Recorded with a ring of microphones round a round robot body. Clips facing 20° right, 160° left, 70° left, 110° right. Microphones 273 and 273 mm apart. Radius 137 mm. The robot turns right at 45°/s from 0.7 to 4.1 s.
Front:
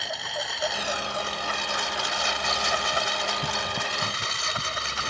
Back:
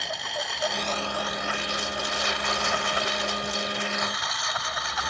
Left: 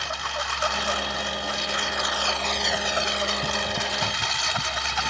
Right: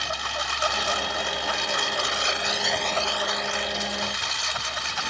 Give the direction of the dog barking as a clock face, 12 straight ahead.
No dog barking in this recording.